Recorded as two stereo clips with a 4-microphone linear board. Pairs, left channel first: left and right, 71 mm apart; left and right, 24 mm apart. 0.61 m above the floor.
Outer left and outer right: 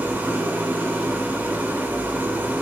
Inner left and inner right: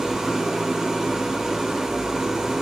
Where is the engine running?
25° right (ahead or behind), 1.3 m.